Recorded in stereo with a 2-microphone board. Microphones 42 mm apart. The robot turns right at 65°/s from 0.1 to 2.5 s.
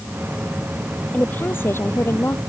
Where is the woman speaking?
35° left; by 2.4 s 115° left.